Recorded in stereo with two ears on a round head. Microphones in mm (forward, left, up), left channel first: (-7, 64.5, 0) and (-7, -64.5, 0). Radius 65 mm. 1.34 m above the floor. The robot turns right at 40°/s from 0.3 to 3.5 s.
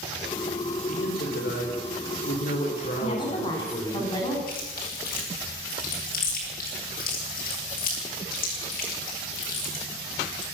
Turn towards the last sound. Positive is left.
turn(degrees=70)  # may be behind; listen again after turning